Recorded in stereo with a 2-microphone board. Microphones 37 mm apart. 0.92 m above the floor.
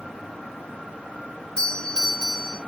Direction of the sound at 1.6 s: 30° left (ahead or behind).